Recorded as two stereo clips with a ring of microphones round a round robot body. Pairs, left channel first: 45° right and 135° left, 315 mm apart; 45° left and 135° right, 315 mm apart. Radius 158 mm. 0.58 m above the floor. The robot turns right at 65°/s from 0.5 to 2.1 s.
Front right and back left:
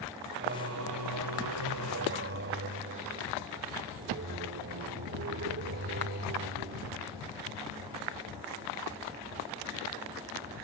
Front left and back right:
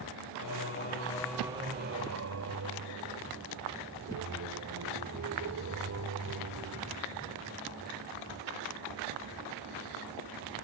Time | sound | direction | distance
0.4 | singing | 80° left | ?